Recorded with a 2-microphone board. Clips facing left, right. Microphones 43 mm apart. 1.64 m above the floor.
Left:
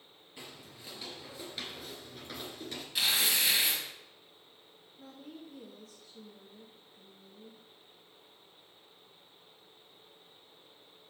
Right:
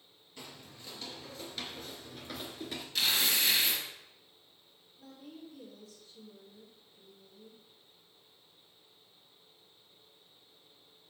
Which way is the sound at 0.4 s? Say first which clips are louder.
Even; 20° left (ahead or behind).